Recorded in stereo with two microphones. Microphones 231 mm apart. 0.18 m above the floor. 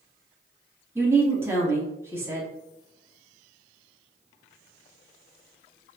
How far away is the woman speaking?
About 1.0 m.